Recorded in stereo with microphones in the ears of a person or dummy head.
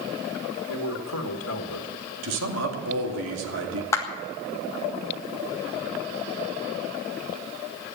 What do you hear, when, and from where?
0.7 s a man speaking: 85° left, 1.5 m
2.2 s a man speaking: 75° right (ahead or behind), 2.5 m
3.9 s a clap: 15° left (ahead or behind), 1.5 m